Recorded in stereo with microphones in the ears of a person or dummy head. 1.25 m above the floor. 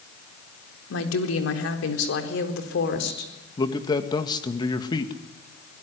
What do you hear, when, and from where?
0.9 s a woman speaking: 85° left, 4 m; by 3.3 s 65° left (ahead or behind), 4 m
3.6 s a man speaking: 20° left (ahead or behind), 1.9 m